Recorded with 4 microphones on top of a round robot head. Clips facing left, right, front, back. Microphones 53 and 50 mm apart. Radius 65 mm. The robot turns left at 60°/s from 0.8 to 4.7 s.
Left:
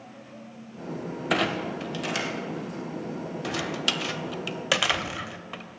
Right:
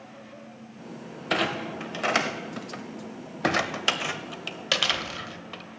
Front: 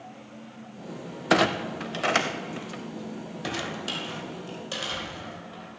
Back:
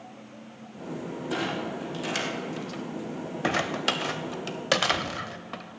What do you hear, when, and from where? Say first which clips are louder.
1.3 s a clunk: left 1 dB, front 8 dB; 5° left, 0.6 m; by 5.6 s 160° left, 0.6 m